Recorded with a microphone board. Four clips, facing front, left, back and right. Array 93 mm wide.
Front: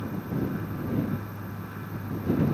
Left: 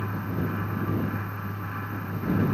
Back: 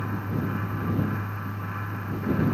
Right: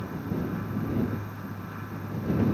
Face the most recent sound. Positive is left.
No sound to turn to.